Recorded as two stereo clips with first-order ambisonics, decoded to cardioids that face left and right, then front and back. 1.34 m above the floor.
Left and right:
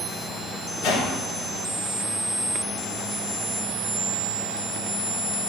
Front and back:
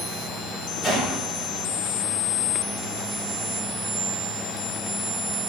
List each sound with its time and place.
0.8 s a whoosh: 75° left, 3 m